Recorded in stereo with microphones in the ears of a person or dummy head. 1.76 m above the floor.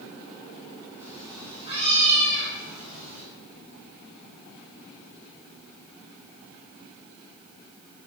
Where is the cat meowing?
15° right (ahead or behind), 2.0 m; by 3.2 s 55° right (ahead or behind), 3 m.